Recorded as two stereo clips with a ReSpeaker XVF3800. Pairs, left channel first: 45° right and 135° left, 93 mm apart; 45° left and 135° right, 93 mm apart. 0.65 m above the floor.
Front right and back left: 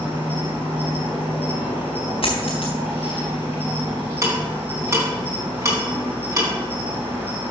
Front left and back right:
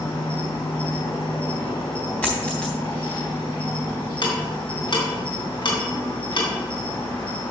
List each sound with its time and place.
0.0 s an insect: 65° left, 4 m
2.2 s a dropped coin: 30° right, 3.5 m
4.2 s ticking: 80° left, 3.5 m